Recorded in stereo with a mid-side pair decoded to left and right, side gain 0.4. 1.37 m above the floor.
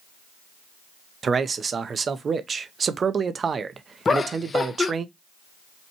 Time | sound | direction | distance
1.2 | a man speaking | 45° right | 0.7 m
4.0 | laughter | 35° left | 0.8 m